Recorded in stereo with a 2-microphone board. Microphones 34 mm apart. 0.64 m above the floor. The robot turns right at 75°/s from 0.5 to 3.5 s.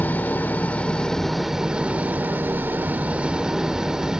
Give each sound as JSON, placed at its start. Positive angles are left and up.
{"t": 0.0, "sound": "an engine running", "azimuth_deg": 115, "distance_m": 1.1}